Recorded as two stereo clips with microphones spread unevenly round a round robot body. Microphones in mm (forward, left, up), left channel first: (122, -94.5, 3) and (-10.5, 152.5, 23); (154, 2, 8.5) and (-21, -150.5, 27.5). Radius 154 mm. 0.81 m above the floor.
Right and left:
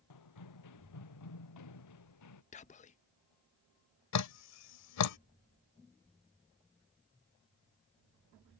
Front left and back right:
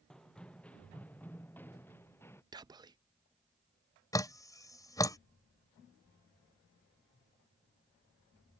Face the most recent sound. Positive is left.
turn(degrees=-35)